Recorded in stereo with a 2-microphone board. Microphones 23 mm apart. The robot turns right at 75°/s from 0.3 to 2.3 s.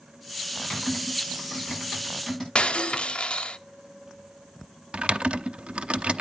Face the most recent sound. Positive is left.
turn(degrees=-60)  # may be behind; listen again after turning